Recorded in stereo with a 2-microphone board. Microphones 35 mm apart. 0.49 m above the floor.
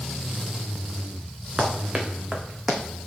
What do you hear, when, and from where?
1.6 s running footsteps: 30° right (ahead or behind), 2.5 m; by 2.8 s 5° right (ahead or behind), 1.6 m